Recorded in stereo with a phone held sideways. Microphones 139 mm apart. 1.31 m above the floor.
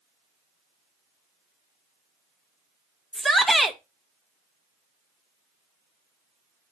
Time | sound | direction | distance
3.1 | a shout | centre (ahead or behind) | 1.4 m